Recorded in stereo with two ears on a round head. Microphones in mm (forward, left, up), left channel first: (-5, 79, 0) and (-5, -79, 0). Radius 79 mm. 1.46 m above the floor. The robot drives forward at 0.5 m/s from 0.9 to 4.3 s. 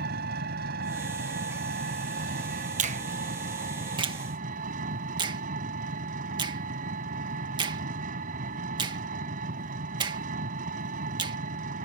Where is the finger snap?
45° right (ahead or behind); by 11.4 s 25° right (ahead or behind).